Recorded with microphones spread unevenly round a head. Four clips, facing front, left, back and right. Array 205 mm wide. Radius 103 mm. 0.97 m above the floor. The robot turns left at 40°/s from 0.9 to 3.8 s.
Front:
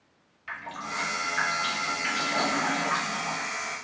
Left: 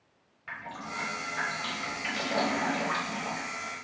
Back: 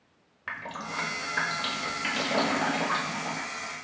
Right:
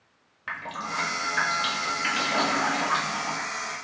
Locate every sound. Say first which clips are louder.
0.5 s dripping: right 6 dB, front 1 dB; 125° right, 1.2 m; by 3.8 s 120° left, 1.2 m